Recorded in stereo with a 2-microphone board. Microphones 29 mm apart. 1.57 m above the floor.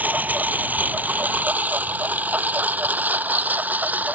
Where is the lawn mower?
80° right.